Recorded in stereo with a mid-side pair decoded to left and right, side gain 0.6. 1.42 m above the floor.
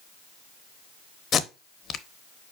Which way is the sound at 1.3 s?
45° left.